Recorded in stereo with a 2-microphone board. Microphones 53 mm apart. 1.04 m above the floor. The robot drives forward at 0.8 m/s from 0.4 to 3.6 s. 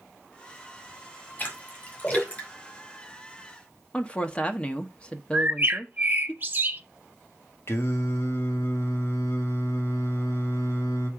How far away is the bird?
About 0.6 m.